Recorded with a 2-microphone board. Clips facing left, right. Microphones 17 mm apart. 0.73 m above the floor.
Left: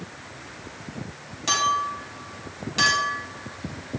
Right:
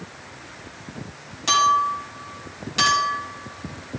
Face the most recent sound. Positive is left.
turn(degrees=-10)  # may be behind; listen again after turning